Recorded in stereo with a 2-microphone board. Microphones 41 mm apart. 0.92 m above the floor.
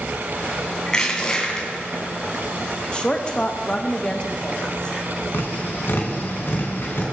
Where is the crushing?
20° left (ahead or behind), 2.5 m.